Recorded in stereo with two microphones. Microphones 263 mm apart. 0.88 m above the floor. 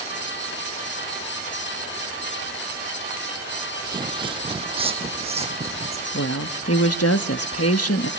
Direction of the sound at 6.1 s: 65° left (ahead or behind).